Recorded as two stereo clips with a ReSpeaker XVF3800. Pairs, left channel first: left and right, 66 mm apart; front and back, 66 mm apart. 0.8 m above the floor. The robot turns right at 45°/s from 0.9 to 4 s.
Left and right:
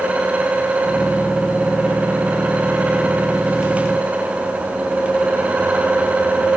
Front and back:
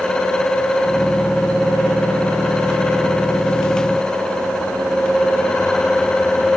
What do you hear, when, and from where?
Only background noise.